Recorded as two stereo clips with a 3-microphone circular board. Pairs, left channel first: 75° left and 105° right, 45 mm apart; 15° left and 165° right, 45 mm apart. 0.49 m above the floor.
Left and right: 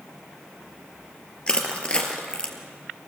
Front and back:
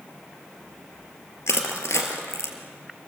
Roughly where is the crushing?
Ahead.